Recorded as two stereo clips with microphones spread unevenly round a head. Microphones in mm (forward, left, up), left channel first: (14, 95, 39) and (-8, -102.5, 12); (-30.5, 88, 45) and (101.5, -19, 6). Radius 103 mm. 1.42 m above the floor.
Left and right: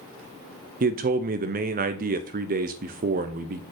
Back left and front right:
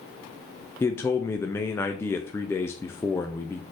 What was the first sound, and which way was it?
A man speaking, 135° right.